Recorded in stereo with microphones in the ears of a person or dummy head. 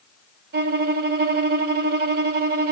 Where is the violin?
55° right (ahead or behind), 1.5 m.